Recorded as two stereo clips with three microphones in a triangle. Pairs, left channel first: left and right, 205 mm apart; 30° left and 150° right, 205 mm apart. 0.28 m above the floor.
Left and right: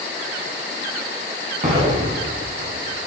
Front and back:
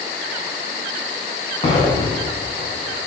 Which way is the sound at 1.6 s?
35° right.